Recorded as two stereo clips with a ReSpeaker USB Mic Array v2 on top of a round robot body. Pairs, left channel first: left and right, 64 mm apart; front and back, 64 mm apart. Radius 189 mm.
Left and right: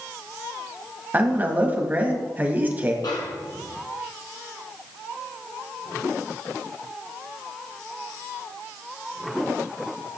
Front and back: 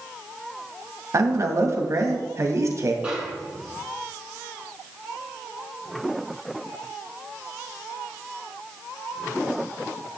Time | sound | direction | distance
1.1 | a man speaking | 150° right | 2 m
3.0 | a snare drum | 105° left | 1.4 m